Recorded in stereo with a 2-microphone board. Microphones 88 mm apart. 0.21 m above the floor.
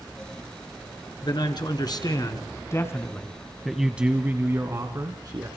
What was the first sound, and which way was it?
A man speaking, 65° left (ahead or behind).